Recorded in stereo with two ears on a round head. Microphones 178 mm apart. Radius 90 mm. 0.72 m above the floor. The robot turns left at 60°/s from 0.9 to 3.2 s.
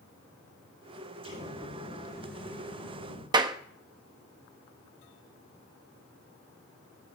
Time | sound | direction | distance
1.2 | an explosion | 150° right | 10 m
3.3 | a clap | 20° right (ahead or behind) | 0.8 m